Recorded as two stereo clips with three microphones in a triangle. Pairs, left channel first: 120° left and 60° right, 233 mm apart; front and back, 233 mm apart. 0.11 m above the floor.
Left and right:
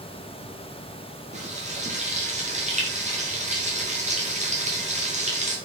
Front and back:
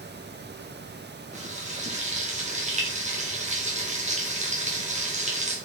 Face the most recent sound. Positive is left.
turn(degrees=-120)